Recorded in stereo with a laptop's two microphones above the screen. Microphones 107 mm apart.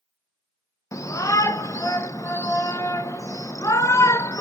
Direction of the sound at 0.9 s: 30° left (ahead or behind).